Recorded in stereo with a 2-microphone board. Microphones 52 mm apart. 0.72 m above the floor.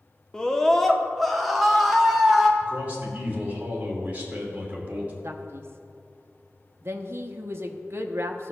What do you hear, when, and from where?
0.3 s a scream: 15° left (ahead or behind), 0.9 m; by 2.5 s 5° right (ahead or behind), 2 m
2.6 s a man speaking: 30° right (ahead or behind), 2.5 m
5.2 s a man speaking: 50° right (ahead or behind), 0.9 m